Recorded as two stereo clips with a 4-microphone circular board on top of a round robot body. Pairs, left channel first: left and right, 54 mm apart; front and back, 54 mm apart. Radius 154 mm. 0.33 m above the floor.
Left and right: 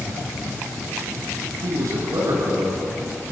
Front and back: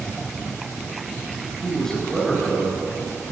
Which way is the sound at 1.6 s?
80° right.